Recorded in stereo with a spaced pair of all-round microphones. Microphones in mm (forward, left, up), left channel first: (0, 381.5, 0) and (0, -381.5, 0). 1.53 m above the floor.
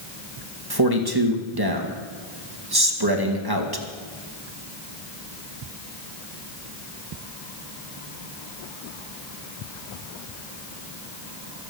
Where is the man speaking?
30° right (ahead or behind), 2 m.